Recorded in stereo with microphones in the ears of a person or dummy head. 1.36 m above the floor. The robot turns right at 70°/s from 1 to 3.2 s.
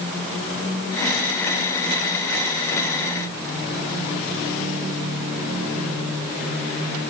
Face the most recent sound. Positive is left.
No sound to turn to.